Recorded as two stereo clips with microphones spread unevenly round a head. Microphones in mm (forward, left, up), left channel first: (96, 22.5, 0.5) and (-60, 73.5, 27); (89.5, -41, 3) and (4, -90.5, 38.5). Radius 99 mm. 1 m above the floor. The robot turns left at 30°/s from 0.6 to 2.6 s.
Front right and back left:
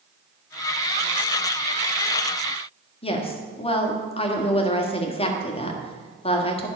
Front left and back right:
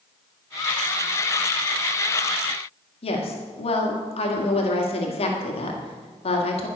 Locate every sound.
3.0 s a woman speaking: 35° left, 1.7 m